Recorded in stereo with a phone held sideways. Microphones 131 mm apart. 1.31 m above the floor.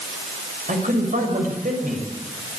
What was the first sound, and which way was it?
A man speaking, 85° right.